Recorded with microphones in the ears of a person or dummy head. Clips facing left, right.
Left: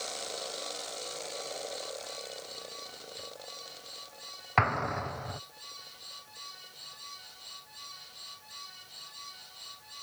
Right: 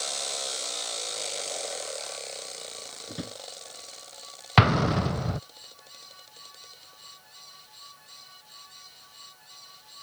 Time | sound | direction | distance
3.1 | a drawer | 80° right | ?
4.6 | an explosion | 50° right (ahead or behind) | ?